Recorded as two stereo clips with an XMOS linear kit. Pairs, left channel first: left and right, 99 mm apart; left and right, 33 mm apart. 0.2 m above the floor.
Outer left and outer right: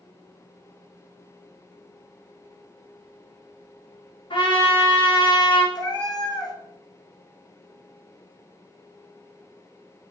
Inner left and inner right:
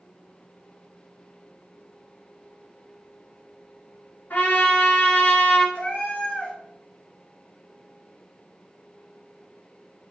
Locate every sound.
4.3 s a trumpet: 65° left (ahead or behind), 1.3 m
5.8 s a cat meowing: 45° left (ahead or behind), 0.7 m